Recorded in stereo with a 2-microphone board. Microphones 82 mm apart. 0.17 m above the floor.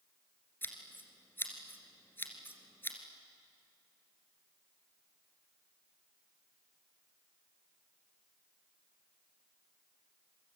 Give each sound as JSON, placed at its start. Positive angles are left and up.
{"t": 0.6, "sound": "scissors", "side_deg": 25, "distance_m": 2.5}